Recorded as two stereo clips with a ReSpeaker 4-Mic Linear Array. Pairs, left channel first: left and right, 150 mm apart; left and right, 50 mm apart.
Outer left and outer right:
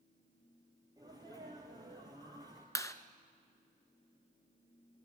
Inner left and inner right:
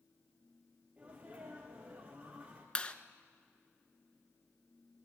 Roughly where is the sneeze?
Right.